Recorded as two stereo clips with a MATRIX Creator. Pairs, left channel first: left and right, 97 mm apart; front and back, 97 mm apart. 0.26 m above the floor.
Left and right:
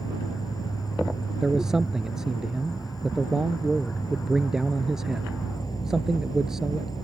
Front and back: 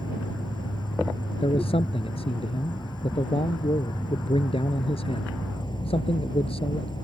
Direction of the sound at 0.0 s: 40° left.